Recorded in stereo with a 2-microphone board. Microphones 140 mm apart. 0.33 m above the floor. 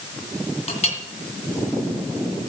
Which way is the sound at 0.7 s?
50° left (ahead or behind).